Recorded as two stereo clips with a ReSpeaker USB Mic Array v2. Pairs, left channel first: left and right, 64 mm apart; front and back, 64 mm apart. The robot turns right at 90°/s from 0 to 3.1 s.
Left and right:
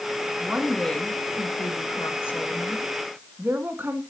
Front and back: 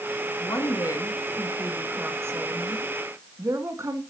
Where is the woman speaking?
30° right, 2.5 m; by 4.0 s 145° right, 2.5 m.